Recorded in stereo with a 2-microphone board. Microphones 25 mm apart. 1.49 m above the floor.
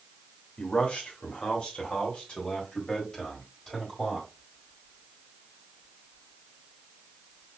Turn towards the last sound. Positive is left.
turn(degrees=25)  # may be behind; listen again after turning